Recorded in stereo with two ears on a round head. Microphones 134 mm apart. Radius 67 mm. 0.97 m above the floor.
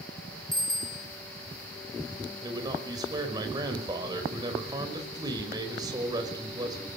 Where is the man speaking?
25° right (ahead or behind), 5 m.